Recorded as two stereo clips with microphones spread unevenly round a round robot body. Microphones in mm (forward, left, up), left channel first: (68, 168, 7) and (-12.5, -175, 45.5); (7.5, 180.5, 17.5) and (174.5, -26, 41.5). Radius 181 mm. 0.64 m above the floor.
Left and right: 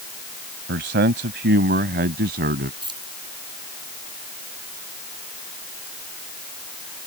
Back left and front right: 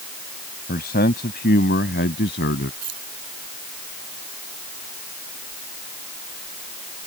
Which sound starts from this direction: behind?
A man speaking, at 0.7 s.